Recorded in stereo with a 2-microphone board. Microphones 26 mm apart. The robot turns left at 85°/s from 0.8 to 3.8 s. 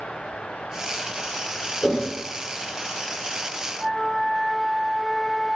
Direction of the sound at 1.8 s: 30° left (ahead or behind).